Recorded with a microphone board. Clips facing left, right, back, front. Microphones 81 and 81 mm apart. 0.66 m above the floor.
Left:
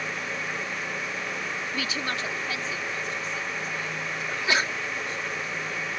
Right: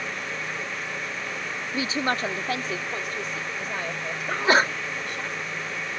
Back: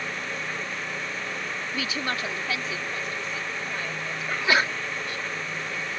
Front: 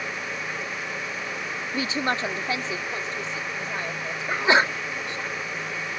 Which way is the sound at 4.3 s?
55° right.